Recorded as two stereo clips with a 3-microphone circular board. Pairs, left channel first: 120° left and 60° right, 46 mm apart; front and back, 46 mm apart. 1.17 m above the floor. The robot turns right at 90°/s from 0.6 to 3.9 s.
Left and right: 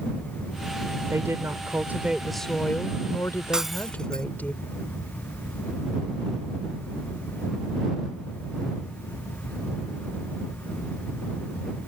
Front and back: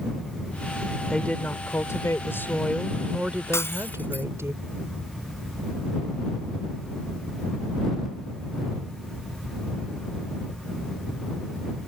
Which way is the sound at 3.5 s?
15° left.